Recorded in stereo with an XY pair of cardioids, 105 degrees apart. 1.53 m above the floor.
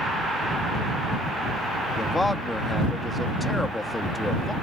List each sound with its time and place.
2.0 s a man speaking: 15° left